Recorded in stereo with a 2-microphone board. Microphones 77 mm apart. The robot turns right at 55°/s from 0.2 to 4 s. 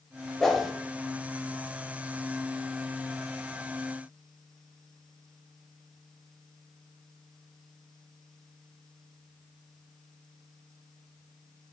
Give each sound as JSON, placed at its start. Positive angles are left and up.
{"t": 0.4, "sound": "a whoosh", "side_deg": 5, "distance_m": 0.5}